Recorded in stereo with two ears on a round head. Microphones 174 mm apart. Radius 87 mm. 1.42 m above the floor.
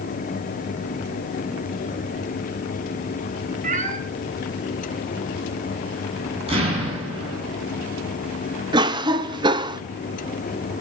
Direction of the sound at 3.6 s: 40° right (ahead or behind).